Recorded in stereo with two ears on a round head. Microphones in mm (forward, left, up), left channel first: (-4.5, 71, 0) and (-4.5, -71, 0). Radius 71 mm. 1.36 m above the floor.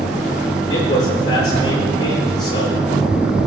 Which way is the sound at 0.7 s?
30° left (ahead or behind).